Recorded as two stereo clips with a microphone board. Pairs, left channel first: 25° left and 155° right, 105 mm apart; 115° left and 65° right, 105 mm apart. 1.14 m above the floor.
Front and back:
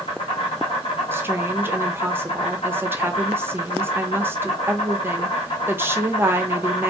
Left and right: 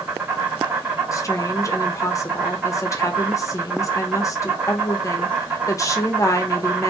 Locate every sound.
0.0 s an insect: 5° left, 1.1 m
1.1 s a woman speaking: 145° left, 0.5 m